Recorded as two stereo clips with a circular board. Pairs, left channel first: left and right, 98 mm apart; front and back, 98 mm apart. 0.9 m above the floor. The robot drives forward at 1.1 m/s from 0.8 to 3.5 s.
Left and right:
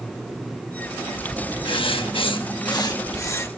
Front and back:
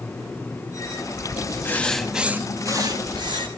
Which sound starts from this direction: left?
Writing, at 1.6 s.